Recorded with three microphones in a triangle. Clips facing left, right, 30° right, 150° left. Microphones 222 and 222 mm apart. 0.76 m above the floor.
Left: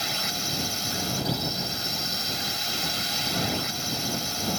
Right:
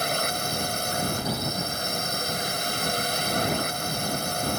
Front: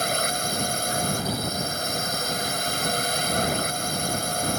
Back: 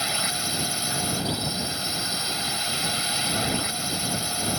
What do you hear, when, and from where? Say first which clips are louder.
0.0 s a drone: right 6 dB, front 5 dB; 65° right